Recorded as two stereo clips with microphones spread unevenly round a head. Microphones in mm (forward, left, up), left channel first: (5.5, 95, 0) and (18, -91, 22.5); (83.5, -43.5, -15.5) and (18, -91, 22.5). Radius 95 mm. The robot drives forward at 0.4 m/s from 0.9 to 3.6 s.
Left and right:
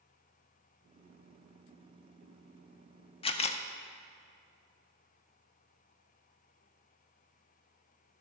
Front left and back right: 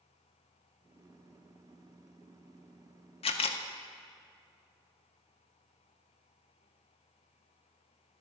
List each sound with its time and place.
3.2 s a camera shutter: 30° left, 0.6 m; by 3.6 s 40° left, 0.5 m